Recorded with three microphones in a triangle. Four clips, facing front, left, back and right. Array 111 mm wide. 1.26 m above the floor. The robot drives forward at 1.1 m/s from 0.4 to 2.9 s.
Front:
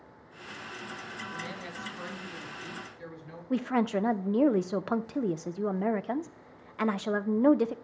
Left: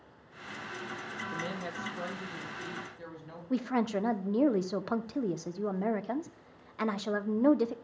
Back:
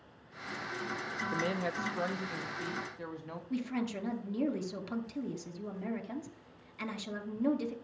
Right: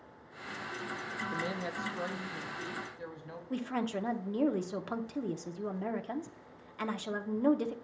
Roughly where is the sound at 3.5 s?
Ahead left.